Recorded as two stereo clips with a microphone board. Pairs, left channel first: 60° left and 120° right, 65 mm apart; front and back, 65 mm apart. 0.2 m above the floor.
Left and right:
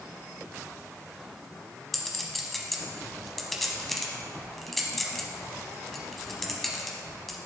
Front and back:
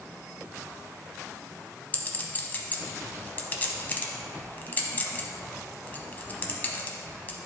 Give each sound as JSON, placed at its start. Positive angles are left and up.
{"t": 1.9, "sound": "a clink", "azimuth_deg": -25, "distance_m": 0.8}